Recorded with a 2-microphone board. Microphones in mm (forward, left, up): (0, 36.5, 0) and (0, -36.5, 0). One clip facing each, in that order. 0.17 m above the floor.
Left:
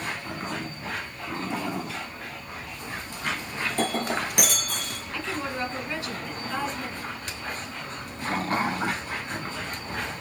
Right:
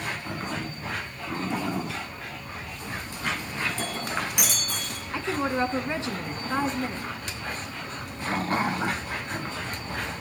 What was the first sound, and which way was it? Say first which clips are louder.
Breaking glass: left 9 dB; 55° left (ahead or behind).